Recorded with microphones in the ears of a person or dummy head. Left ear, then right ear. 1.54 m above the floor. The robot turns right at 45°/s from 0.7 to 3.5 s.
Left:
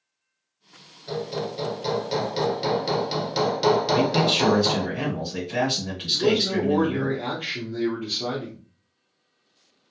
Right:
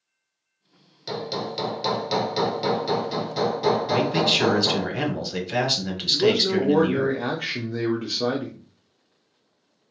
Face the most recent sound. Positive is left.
turn(degrees=-50)  # may be behind; listen again after turning